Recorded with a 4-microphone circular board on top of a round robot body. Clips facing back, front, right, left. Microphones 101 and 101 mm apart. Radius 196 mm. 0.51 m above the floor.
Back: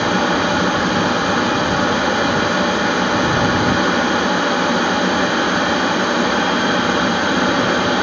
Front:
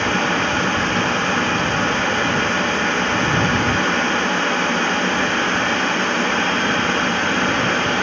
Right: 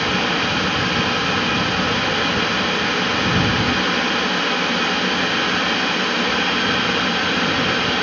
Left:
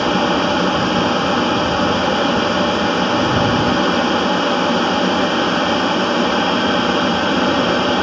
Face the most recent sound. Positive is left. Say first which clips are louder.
# back 3 dB, left 6 dB
turn(degrees=110)